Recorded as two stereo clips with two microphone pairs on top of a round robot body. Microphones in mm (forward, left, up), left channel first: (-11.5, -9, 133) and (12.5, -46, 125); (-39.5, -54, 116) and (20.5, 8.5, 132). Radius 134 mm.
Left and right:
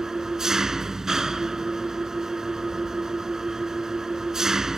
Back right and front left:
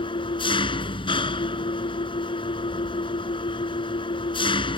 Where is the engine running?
135° right.